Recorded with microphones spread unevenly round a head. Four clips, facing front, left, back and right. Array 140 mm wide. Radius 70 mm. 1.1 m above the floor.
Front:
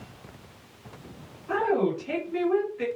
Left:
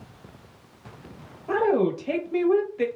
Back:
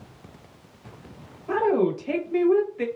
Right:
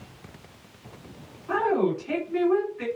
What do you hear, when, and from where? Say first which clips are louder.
1.5 s a woman speaking: left 2 dB, back 3 dB; 120° left, 1.5 m